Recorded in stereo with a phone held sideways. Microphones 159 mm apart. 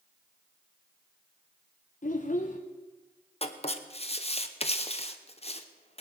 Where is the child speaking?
55° left (ahead or behind), 0.8 m.